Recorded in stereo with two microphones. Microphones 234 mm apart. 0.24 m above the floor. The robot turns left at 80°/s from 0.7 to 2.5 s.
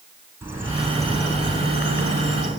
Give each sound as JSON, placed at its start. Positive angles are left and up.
{"t": 0.4, "sound": "a bird", "azimuth_deg": -170, "distance_m": 3.0}